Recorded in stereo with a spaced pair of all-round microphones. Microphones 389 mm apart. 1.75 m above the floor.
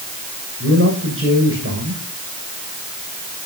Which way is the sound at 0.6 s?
35° right (ahead or behind).